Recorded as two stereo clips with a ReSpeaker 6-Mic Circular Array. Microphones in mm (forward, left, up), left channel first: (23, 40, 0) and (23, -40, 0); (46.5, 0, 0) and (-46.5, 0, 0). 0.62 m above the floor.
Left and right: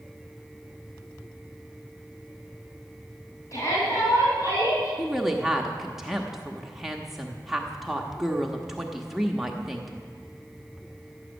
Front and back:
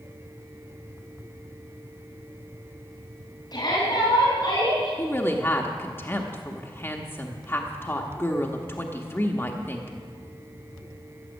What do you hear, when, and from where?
3.5 s a shout: 45° left, 3.5 m; by 4.9 s 50° left, 5.5 m
5.0 s a woman speaking: 5° right, 0.9 m